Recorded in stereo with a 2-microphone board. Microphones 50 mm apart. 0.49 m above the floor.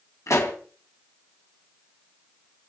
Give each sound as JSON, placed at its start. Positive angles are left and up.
{"t": 0.3, "sound": "a pop", "side_deg": 80, "distance_m": 2.5}